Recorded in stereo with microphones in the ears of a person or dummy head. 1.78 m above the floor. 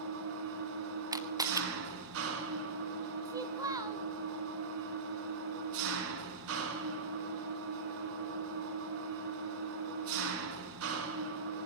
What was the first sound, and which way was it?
An engine running, 70° right (ahead or behind).